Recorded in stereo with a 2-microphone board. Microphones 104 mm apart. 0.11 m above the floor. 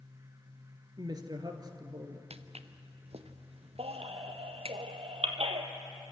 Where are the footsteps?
80° right, 1.1 m; by 4.8 s 70° right (ahead or behind), 2.5 m.